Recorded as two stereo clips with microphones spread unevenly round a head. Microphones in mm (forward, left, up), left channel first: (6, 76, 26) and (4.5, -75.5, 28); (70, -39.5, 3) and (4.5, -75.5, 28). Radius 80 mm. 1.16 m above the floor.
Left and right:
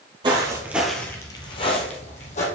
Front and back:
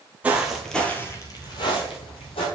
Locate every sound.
0.2 s footsteps: 135° right, 1.4 m; by 2.5 s 50° left, 2 m